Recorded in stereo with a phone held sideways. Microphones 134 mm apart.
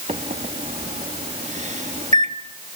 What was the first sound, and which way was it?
A microwave, 60° right (ahead or behind).